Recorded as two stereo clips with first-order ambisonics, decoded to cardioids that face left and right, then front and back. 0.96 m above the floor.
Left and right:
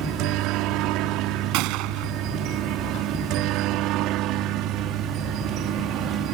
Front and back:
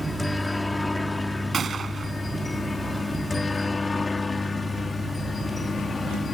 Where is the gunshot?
110° right.